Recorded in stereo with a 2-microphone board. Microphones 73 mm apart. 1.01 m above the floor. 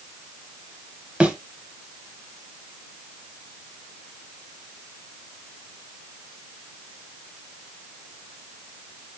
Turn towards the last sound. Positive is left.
turn(degrees=-15)  # may be behind; listen again after turning